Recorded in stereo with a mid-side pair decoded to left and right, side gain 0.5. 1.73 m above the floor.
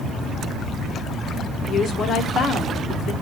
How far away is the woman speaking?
About 1.1 m.